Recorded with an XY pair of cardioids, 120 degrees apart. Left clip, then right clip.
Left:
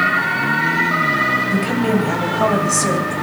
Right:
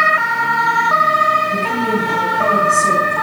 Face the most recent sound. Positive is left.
turn(degrees=45)